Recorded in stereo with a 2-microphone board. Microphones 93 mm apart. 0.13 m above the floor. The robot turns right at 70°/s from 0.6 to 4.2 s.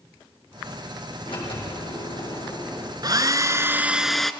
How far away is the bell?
I don't hear a bell.